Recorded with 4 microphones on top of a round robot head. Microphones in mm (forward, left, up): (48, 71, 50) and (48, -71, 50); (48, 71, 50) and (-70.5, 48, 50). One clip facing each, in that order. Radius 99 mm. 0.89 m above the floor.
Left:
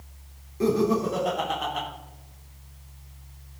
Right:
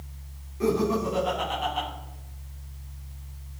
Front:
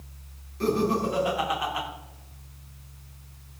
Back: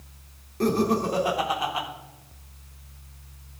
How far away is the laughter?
About 3.5 m.